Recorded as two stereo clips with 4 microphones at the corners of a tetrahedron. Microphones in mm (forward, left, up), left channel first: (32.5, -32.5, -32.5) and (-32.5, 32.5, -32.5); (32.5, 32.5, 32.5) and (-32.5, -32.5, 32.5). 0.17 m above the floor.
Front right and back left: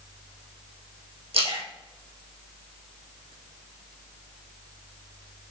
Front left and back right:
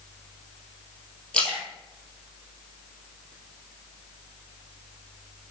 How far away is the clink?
I don't hear a clink.